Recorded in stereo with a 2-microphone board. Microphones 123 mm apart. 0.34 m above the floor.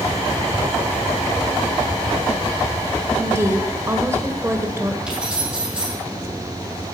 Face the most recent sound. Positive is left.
turn(degrees=-5)  # may be behind; listen again after turning